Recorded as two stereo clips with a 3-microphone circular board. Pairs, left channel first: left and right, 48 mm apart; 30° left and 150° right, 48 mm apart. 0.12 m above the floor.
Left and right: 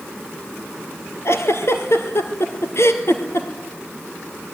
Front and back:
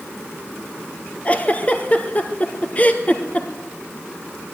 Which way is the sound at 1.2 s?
85° left.